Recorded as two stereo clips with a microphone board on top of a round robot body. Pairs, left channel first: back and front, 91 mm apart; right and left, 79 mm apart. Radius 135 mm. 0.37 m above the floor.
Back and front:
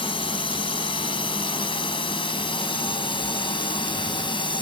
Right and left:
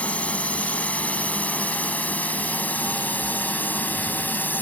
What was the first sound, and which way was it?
A drone, 160° right.